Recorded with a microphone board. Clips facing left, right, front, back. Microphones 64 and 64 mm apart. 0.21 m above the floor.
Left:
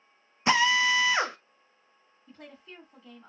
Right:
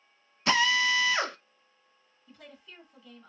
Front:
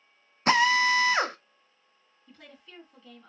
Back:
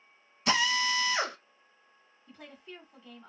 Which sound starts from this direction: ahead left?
A drill, at 0.5 s.